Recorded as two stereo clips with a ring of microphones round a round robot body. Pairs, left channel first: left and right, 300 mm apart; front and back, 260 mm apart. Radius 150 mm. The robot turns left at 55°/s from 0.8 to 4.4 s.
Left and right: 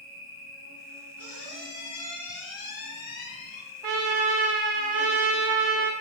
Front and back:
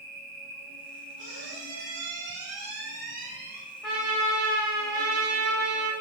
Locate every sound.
0.0 s an insect: 110° right, 1.4 m; by 6.0 s 55° left, 1.4 m
1.2 s a squeak: 130° right, 1.4 m; by 3.6 s 95° left, 1.4 m
3.8 s a trumpet: 85° right, 0.6 m; by 5.9 s 120° right, 0.6 m